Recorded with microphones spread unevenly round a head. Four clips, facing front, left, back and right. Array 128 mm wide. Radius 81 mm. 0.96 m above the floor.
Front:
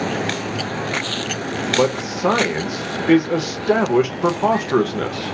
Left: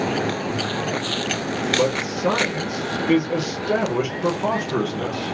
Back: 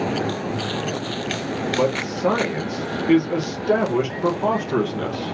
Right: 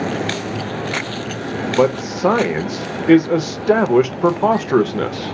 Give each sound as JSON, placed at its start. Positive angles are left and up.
{"t": 1.7, "sound": "a man speaking", "azimuth_deg": -70, "distance_m": 0.6}